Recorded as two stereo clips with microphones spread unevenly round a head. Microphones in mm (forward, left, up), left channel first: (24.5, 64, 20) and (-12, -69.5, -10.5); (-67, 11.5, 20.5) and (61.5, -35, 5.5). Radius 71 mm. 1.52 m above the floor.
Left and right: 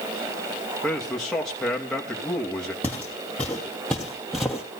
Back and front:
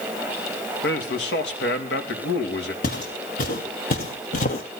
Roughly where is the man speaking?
Behind.